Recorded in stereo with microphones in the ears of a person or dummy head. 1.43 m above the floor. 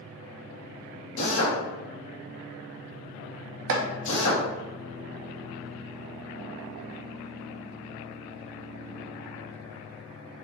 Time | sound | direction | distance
1.2 | a drill | 75° left (ahead or behind) | 1.1 m
3.7 | chopping | 65° right (ahead or behind) | 0.7 m